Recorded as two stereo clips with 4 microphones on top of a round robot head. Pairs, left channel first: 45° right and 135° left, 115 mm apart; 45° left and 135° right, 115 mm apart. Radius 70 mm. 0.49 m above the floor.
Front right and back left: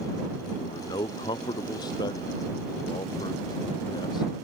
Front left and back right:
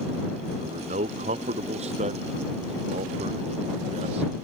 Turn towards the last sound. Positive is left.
turn(degrees=-100)